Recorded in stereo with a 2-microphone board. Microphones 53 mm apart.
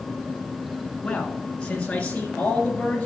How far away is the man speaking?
About 1.2 m.